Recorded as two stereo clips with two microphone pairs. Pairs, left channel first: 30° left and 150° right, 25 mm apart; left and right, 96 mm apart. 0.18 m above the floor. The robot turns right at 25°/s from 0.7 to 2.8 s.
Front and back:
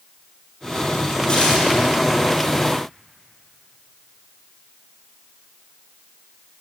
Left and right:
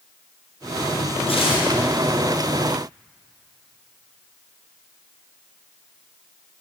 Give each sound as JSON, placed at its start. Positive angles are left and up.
{"t": 1.3, "sound": "tearing paper", "azimuth_deg": 80, "distance_m": 3.0}